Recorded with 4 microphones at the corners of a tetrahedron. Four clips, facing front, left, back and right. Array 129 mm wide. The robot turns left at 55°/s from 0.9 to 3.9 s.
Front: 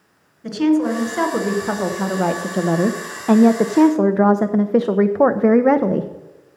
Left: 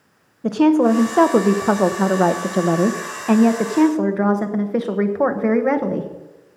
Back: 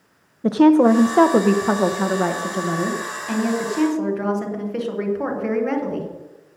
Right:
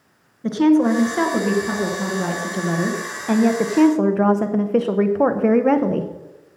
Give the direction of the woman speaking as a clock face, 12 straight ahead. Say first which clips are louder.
Left 1 dB, back 4 dB; 7 o'clock.